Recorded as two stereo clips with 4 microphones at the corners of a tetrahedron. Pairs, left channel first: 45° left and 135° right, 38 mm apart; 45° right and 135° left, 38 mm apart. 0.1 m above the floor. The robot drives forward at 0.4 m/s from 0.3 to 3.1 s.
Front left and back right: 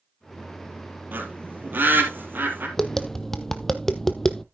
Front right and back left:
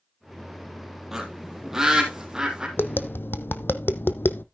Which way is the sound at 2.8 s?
30° right.